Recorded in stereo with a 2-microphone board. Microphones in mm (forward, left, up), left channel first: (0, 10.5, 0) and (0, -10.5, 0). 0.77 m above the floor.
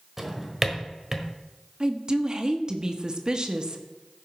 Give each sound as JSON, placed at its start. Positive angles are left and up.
{"t": 0.2, "sound": "a drawer", "side_deg": -5, "distance_m": 1.4}
{"t": 1.8, "sound": "a woman speaking", "side_deg": -35, "distance_m": 1.1}